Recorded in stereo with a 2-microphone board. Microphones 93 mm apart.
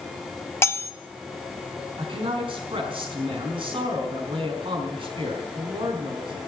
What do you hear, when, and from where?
0.6 s cutlery clinking: 25° left (ahead or behind), 0.6 m
2.0 s a man speaking: 65° right (ahead or behind), 5 m